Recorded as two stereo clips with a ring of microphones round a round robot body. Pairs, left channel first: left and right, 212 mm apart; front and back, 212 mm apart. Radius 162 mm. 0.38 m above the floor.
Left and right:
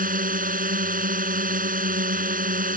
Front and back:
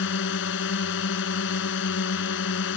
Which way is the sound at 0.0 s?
40° right.